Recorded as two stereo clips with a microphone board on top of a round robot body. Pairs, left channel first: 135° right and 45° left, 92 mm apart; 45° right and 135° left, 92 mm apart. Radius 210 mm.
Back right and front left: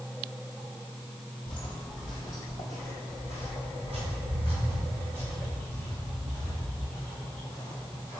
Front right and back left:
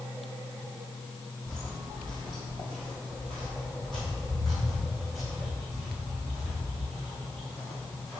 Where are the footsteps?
105° right, 1.1 m; by 8.2 s 50° left, 5.5 m.